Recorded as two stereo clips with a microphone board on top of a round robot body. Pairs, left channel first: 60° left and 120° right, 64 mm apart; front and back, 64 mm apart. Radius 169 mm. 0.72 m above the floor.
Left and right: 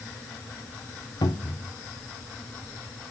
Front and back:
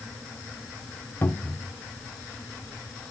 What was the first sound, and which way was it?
A cupboard door, 65° left.